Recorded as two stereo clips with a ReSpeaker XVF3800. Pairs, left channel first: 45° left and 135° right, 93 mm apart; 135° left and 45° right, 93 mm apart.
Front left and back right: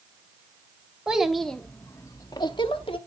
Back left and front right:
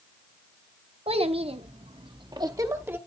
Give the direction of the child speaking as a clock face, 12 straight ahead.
2 o'clock.